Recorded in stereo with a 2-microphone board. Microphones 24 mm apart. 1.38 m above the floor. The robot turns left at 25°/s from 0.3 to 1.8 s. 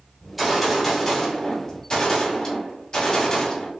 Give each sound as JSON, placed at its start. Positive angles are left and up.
{"t": 0.2, "sound": "a gunshot", "azimuth_deg": -175, "distance_m": 2.0}